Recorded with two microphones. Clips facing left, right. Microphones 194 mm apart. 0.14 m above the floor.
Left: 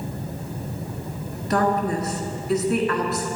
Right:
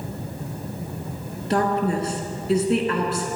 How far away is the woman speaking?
About 1.5 m.